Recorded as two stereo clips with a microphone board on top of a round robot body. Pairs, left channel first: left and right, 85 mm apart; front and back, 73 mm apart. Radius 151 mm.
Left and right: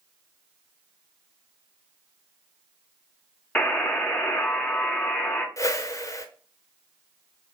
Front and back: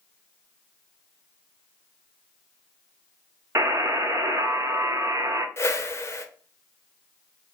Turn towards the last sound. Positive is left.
turn(degrees=45)